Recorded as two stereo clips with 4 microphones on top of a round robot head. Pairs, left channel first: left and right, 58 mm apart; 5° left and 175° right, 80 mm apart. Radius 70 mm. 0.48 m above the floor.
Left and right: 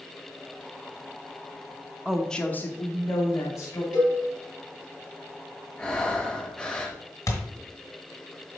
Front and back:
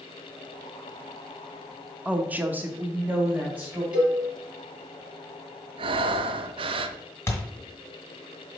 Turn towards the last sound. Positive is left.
turn(degrees=60)